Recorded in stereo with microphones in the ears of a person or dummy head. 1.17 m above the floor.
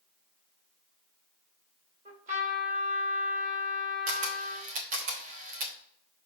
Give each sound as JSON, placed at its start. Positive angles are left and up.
{"t": 2.0, "sound": "a trumpet", "side_deg": -50, "distance_m": 2.5}
{"t": 4.1, "sound": "a camera shutter", "side_deg": -45, "distance_m": 0.9}